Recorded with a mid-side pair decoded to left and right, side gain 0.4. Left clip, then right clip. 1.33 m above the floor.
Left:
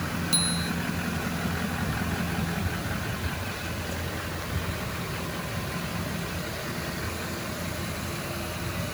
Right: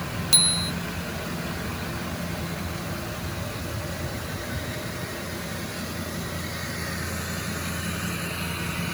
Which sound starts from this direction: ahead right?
A bicycle bell, at 0.3 s.